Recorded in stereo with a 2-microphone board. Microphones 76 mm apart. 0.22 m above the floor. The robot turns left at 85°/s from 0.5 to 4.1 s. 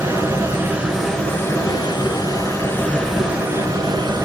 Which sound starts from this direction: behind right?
Running water, at 0.0 s.